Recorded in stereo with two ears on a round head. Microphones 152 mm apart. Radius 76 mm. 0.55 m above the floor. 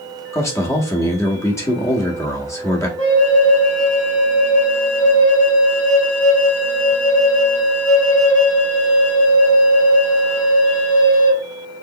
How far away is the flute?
About 1.8 m.